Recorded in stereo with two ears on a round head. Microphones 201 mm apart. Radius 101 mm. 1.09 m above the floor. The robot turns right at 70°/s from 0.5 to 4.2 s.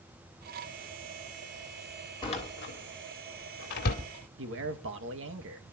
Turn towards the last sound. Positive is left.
turn(degrees=-60)  # may be behind; listen again after turning